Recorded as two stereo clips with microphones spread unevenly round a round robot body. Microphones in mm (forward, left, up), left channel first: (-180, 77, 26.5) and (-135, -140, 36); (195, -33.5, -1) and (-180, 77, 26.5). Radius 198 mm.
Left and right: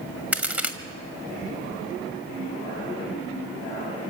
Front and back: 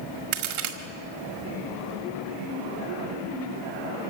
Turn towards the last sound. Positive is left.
turn(degrees=-160)